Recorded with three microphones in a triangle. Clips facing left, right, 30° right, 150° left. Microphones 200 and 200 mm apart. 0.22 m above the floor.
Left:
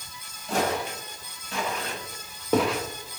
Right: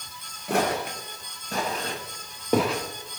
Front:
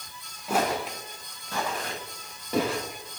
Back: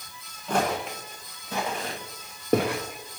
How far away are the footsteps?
About 2 m.